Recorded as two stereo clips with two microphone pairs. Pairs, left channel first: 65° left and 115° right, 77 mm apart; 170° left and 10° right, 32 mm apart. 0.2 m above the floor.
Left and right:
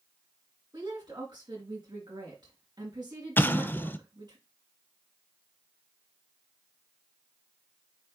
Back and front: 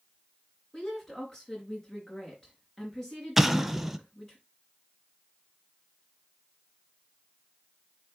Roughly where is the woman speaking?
Behind right.